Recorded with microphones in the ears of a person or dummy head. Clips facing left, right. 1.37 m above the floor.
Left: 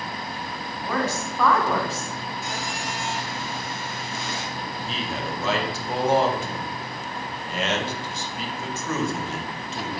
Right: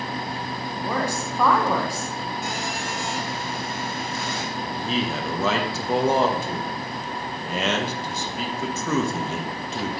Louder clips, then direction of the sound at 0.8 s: Even; 15° right (ahead or behind).